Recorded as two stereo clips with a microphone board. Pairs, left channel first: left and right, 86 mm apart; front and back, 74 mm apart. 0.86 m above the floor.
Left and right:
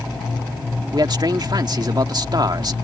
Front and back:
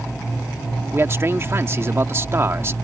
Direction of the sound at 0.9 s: 125° right.